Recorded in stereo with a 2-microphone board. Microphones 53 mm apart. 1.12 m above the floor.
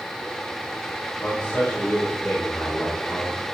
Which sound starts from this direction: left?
A man speaking, at 1.2 s.